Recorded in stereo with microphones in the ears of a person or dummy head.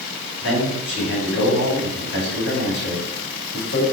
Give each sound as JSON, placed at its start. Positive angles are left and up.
{"t": 0.4, "sound": "a man speaking", "side_deg": 80, "distance_m": 5.5}